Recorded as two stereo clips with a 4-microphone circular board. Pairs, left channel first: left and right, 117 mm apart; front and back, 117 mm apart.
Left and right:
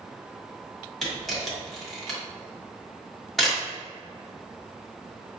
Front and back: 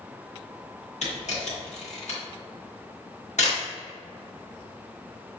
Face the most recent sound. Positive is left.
turn(degrees=5)